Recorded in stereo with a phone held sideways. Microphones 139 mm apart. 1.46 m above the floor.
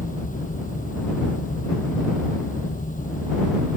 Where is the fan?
85° left.